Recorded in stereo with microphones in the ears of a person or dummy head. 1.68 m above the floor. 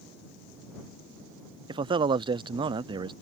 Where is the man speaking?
25° right (ahead or behind).